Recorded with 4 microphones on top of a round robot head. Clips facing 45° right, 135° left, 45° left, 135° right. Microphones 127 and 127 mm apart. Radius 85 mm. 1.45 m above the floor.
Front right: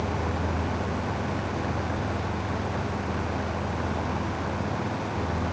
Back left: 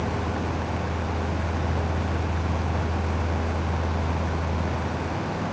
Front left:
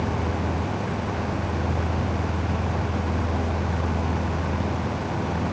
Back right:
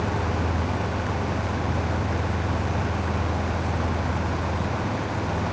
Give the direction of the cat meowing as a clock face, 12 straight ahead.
No cat meowing in this recording.